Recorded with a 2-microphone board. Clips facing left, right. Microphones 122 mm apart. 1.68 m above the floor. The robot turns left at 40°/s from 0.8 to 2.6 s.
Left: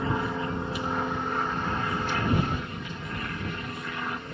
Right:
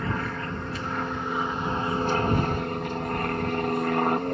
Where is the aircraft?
15° left; by 4.3 s 55° right.